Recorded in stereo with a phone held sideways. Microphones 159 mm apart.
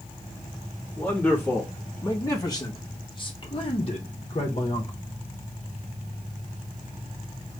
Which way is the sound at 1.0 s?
10° left (ahead or behind).